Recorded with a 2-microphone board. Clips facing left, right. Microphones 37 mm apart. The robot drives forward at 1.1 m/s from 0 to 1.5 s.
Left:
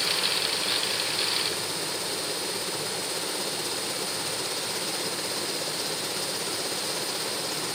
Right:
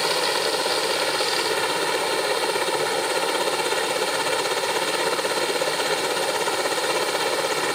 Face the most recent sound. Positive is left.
turn(degrees=-50)  # may be behind; listen again after turning